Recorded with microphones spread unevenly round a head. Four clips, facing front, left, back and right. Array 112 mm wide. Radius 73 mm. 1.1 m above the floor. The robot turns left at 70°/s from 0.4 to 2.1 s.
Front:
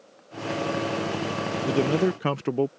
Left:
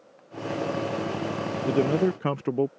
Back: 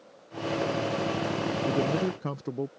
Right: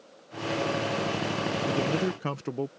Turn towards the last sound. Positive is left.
turn(degrees=35)